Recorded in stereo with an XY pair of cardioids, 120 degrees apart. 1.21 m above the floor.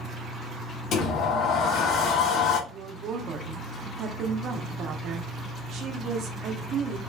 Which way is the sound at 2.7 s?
60° right.